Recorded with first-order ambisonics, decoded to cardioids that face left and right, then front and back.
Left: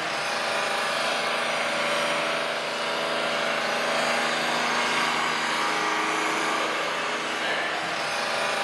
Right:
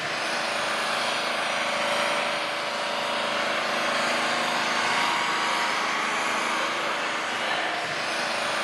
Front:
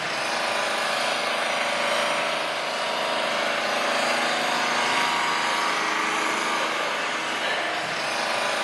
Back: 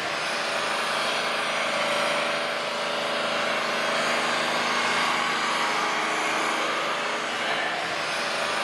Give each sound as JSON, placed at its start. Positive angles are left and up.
{"t": 0.0, "sound": "an engine running", "azimuth_deg": 30, "distance_m": 1.4}